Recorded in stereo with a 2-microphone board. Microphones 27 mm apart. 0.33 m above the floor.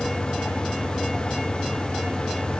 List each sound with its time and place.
Only background noise.